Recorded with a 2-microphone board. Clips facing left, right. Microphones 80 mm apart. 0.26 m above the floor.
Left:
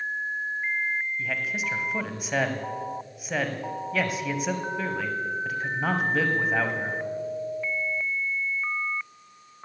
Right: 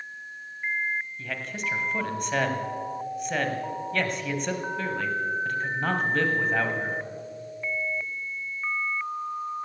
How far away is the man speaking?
About 1.3 m.